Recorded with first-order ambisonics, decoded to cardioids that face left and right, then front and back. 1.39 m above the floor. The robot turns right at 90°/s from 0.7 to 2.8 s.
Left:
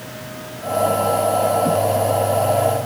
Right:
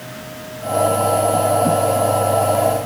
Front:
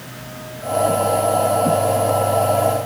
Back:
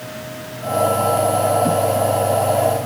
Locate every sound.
Only background noise.